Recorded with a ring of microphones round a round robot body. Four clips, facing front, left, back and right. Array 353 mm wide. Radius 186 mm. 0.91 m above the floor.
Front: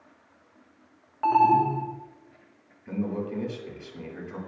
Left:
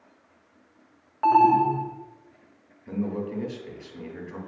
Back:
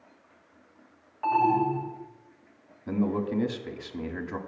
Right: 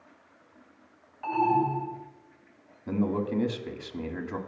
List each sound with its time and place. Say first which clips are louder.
1.2 s an alarm: left 7 dB, front 4 dB; 65° left, 1.9 m
2.9 s a man speaking: right 2 dB, back 3 dB; 135° right, 2 m